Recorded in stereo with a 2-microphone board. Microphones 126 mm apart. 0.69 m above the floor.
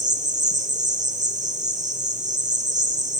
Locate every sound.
0.0 s an insect: 75° right (ahead or behind), 2.5 m